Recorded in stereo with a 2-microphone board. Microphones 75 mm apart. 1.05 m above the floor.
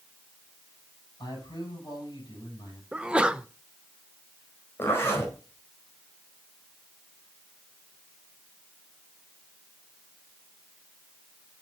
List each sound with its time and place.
1.2 s a man speaking: 70° left (ahead or behind), 5.5 m
2.9 s a sneeze: 15° right (ahead or behind), 0.6 m
4.8 s a zipper: 30° left (ahead or behind), 4.5 m